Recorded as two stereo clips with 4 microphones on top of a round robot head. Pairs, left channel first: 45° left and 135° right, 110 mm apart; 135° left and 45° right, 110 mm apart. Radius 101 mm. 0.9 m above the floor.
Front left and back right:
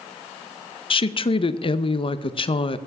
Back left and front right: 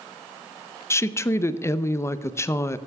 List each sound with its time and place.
0.9 s a woman speaking: 75° left, 0.6 m